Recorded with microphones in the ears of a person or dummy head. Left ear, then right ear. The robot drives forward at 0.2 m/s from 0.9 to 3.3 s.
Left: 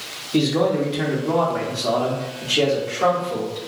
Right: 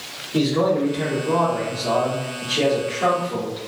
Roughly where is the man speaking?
Left.